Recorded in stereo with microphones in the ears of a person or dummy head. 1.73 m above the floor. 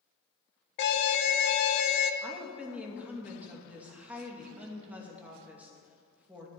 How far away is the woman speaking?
About 2.5 m.